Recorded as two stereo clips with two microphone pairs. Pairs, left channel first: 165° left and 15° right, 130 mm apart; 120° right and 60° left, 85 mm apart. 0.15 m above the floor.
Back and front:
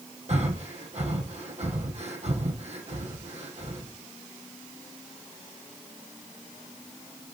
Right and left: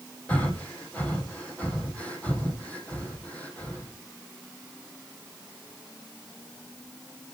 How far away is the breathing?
About 3 m.